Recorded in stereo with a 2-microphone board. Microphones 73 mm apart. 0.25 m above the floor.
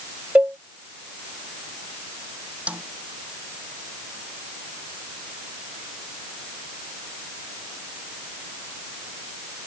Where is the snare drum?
15° right (ahead or behind).